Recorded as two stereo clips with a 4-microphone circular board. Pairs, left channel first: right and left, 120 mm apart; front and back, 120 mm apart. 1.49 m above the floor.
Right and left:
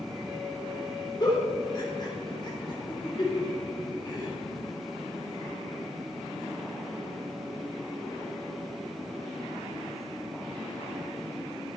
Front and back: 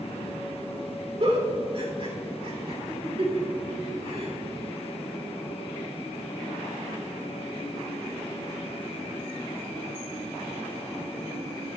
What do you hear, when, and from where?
1.2 s a giggle: 140° right, 3 m